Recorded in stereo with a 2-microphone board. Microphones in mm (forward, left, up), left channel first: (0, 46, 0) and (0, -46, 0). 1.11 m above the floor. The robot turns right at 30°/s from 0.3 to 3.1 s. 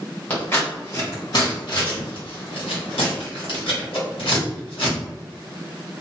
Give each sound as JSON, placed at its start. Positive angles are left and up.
{"t": 0.3, "sound": "scissors", "side_deg": 15, "distance_m": 1.3}